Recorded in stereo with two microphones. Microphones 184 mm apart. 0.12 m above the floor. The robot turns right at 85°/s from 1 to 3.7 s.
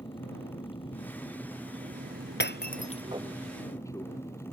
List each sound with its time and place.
0.0 s an aircraft: 150° left; by 4.5 s 20° left
2.4 s breaking glass: 80° left; by 3.0 s 30° left (ahead or behind)